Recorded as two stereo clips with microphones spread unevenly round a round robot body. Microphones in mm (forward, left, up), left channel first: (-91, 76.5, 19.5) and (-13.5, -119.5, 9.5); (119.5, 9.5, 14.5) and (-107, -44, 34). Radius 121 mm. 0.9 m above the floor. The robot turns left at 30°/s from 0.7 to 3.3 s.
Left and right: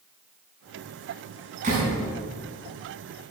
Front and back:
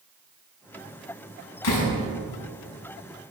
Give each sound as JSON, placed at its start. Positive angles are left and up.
{"t": 1.6, "sound": "a door slam", "azimuth_deg": -5, "distance_m": 6.0}